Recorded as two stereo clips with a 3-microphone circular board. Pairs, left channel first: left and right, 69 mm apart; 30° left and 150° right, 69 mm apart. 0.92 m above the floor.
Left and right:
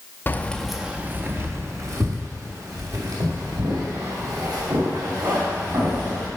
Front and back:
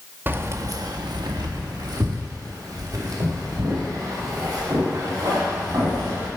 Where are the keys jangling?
150° left, 0.6 m; by 6.3 s 110° right, 4 m.